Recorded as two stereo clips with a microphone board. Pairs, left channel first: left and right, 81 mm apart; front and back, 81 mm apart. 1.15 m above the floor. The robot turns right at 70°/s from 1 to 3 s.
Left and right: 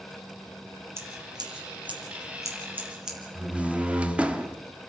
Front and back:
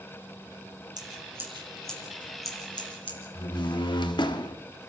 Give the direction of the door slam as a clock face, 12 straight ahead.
12 o'clock.